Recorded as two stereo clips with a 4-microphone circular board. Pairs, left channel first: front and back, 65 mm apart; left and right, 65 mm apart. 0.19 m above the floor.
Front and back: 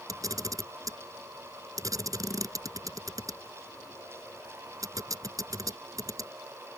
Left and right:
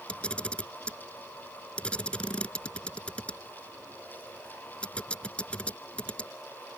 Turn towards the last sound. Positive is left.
turn(degrees=160)